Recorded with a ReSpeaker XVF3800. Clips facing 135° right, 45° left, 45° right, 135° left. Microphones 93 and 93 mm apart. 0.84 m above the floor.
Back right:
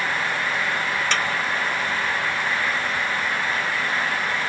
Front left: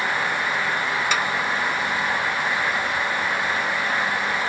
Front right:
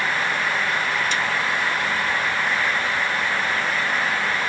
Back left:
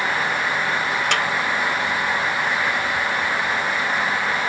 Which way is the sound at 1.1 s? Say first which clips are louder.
Front left 1 dB, back left 3 dB; 125° left.